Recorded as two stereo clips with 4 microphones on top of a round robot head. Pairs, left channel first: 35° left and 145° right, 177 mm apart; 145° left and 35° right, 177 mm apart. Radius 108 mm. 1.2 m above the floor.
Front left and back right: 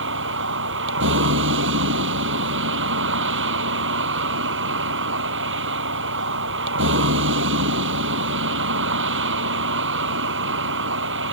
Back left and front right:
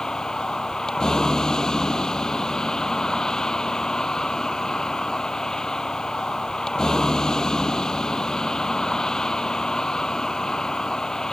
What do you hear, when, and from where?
0.0 s a vehicle: 130° right